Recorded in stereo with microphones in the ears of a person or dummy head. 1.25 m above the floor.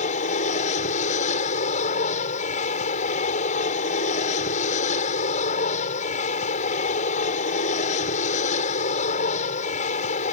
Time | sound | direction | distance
0.0 | an aircraft | 45° left (ahead or behind) | ?